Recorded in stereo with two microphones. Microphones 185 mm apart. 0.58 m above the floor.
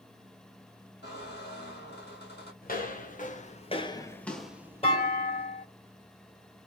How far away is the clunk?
About 2 m.